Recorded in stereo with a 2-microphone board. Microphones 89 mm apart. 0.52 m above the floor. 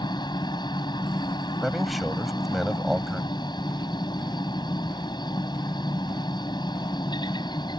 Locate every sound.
0.0 s a helicopter: 50° left (ahead or behind)
1.6 s a man speaking: centre (ahead or behind)